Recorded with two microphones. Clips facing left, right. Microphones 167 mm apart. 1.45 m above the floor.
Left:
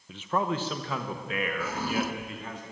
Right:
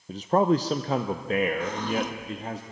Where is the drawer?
10° left (ahead or behind), 1.3 m.